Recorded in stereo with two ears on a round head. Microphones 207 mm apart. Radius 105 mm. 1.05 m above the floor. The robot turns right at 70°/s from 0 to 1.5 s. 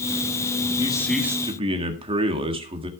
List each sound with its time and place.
0.8 s a man speaking: 155° left, 1.7 m; by 2.9 s 155° right, 1.7 m